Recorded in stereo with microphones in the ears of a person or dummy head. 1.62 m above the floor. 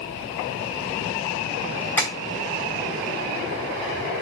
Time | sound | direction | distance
2.0 | tapping | 15° left (ahead or behind) | 2.5 m